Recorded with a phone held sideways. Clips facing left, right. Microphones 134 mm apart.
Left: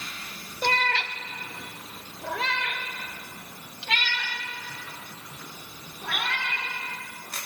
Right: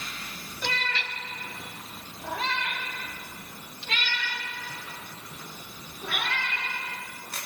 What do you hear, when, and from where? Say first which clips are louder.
0.6 s a cat meowing: left 7 dB; 50° left (ahead or behind), 0.8 m; by 6.6 s 75° left (ahead or behind), 5.5 m